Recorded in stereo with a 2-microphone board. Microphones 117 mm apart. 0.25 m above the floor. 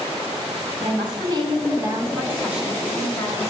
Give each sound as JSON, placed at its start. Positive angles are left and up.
{"t": 0.8, "sound": "a woman speaking", "side_deg": -45, "distance_m": 1.6}